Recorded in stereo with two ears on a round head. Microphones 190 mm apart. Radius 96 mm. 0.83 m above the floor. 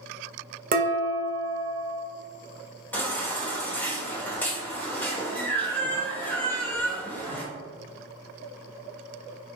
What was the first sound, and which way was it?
Dishes clattering, 45° right (ahead or behind).